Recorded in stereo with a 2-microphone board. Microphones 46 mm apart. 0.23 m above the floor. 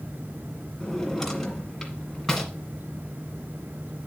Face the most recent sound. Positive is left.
turn(degrees=5)  # may be behind; listen again after turning